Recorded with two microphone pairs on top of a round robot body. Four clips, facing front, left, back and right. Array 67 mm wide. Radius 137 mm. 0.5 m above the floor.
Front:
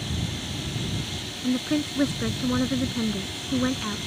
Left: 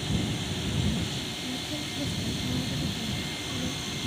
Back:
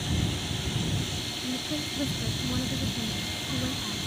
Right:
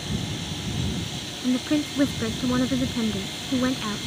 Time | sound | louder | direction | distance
1.4 | a woman speaking | right 16 dB, front 10 dB | 60° right | ?